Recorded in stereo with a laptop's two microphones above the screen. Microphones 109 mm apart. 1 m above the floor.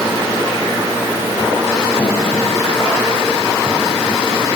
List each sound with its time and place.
Only background noise.